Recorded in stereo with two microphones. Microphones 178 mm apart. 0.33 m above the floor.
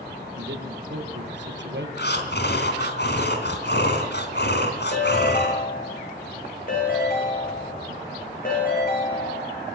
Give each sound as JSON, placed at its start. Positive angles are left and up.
{"t": 0.3, "sound": "a man speaking", "side_deg": -75, "distance_m": 6.5}
{"t": 2.0, "sound": "breathing", "side_deg": 70, "distance_m": 3.5}
{"t": 4.9, "sound": "a ringtone", "side_deg": 50, "distance_m": 9.5}